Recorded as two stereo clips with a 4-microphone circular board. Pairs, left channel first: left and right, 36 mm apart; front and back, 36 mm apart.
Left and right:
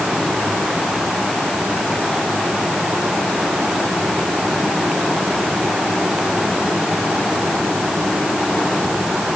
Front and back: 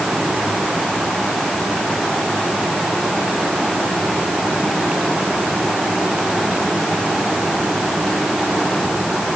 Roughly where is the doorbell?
I don't hear a doorbell.